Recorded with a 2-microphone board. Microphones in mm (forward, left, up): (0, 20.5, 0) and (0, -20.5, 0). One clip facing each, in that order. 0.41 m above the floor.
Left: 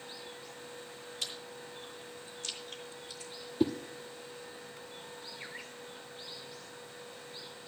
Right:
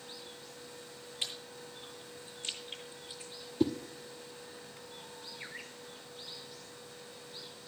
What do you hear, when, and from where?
1.2 s chewing: 25° right (ahead or behind), 8.5 m
3.6 s a whoosh: 5° left (ahead or behind), 0.8 m